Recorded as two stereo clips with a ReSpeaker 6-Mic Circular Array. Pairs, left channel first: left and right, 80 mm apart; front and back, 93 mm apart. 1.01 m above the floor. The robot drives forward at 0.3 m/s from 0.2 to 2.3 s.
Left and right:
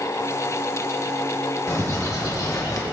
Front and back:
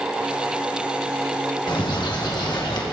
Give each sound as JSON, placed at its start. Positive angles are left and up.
{"t": 1.7, "sound": "a bird", "azimuth_deg": 35, "distance_m": 1.3}